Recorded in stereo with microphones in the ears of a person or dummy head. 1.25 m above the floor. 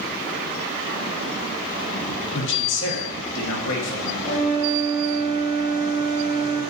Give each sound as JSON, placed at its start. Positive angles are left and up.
{"t": 2.3, "sound": "a man speaking", "side_deg": 65, "distance_m": 0.9}
{"t": 4.2, "sound": "a flute", "side_deg": -65, "distance_m": 1.3}